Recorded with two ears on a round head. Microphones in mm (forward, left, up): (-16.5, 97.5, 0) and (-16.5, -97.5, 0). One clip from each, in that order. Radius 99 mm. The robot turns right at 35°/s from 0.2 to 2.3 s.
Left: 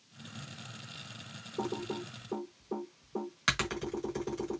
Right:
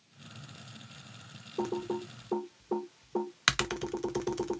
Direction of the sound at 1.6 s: 15° right (ahead or behind).